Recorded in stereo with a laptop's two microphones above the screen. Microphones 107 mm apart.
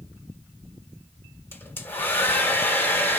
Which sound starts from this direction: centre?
A hair dryer, at 1.5 s.